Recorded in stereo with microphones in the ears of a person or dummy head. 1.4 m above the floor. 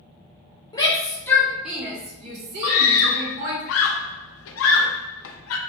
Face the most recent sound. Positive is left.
turn(degrees=75)  # may be behind; listen again after turning